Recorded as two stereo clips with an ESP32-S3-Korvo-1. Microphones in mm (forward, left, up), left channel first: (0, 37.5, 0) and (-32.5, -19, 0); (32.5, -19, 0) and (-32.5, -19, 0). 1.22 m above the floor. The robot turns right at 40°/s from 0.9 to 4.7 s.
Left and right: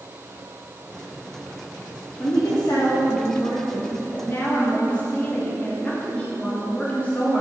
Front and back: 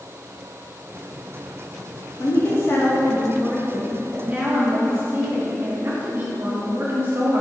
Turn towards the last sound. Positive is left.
turn(degrees=130)